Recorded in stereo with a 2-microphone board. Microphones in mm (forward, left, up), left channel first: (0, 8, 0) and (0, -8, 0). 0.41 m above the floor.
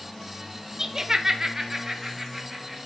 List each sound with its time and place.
0.8 s laughter: 35° right (ahead or behind), 1.0 m; by 2.8 s 15° right (ahead or behind), 2.5 m